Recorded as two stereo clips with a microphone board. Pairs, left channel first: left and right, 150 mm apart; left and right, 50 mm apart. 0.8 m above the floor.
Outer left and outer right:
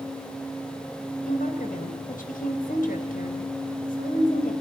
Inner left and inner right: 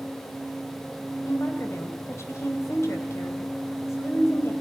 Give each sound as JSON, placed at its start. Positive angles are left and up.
{"t": 1.3, "sound": "a woman speaking", "side_deg": 70, "distance_m": 3.5}